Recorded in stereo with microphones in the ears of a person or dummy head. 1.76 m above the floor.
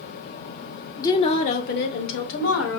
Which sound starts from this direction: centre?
A woman speaking, at 1.0 s.